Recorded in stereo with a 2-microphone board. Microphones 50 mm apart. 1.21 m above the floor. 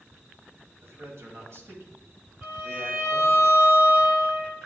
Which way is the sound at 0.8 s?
60° right (ahead or behind).